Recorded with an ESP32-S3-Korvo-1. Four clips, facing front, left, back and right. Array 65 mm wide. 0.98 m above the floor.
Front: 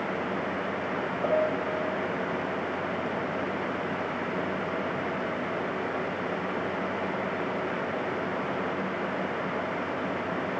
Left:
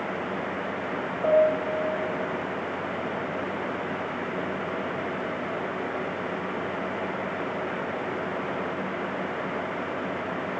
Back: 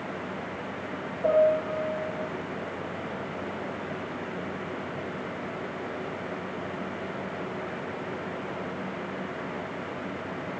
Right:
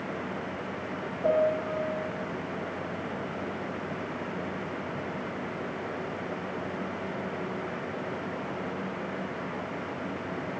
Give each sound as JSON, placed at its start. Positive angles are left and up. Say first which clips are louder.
{"t": 1.2, "sound": "a piano", "louder": "left 4 dB, back 6 dB", "azimuth_deg": 55, "distance_m": 9.0}